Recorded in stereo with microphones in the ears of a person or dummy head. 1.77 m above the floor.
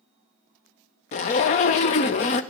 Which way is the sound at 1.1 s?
40° left (ahead or behind).